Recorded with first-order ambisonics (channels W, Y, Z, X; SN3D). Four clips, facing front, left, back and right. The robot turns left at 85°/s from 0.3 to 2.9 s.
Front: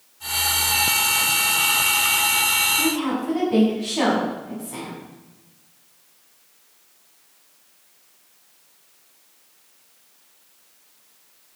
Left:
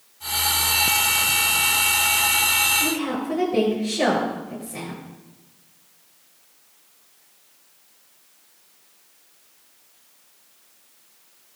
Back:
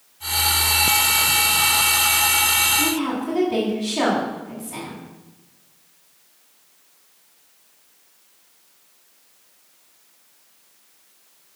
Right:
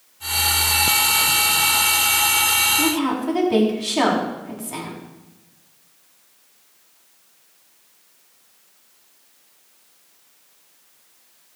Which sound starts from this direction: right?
A woman speaking, at 2.8 s.